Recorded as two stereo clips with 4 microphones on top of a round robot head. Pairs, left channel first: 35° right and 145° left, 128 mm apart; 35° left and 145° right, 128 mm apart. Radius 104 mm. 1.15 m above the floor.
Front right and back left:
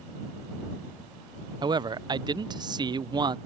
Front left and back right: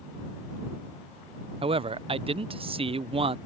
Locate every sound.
1.6 s a man speaking: 170° right